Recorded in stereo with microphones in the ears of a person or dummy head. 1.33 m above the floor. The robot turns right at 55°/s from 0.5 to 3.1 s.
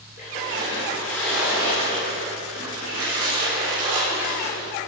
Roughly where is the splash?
Behind left.